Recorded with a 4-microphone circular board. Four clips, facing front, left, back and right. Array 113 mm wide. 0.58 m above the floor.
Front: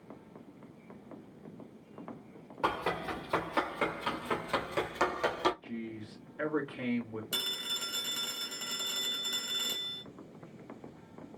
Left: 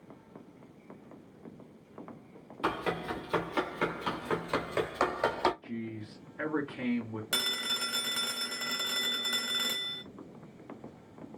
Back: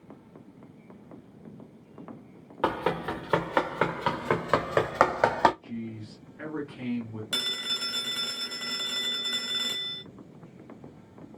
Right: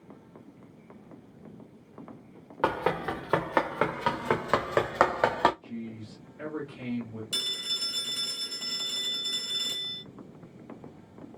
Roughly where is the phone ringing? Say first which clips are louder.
Left 5 dB, back 5 dB; left.